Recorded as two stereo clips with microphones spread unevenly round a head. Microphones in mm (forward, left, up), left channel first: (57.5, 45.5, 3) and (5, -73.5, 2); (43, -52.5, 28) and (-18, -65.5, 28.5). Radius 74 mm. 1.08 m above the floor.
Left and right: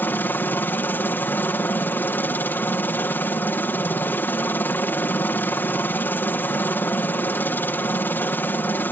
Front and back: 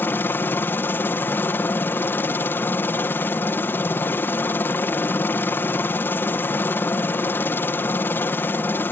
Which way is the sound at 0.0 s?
5° left.